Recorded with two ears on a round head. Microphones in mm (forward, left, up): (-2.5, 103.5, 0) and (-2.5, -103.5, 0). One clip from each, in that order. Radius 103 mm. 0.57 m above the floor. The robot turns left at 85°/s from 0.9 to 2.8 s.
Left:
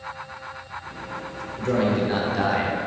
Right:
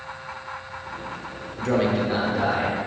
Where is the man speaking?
150° right, 1.1 m; by 2.8 s 105° left, 1.1 m.